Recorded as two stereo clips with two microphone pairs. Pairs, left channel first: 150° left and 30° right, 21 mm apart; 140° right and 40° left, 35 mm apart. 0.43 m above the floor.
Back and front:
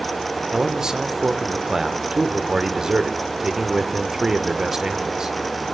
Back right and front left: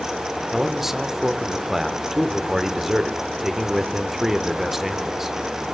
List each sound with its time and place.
0.5 s a man speaking: 35° right, 0.9 m